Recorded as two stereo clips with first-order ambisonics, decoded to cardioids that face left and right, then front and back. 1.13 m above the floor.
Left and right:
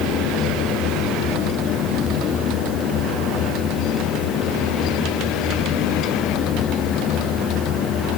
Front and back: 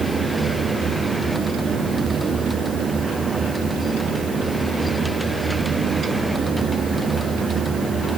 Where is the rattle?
I don't hear a rattle.